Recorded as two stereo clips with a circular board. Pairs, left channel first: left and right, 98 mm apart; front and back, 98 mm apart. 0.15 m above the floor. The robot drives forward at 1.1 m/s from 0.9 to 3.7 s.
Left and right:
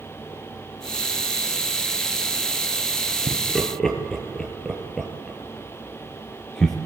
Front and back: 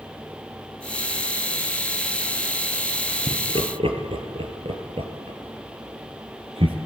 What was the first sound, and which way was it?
Laughter, 175° left.